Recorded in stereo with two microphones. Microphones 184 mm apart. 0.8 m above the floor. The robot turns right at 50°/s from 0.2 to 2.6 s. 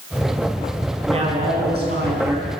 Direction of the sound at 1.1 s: 150° right.